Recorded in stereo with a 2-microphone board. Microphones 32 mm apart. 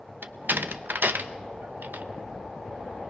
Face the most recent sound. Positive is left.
turn(degrees=-80)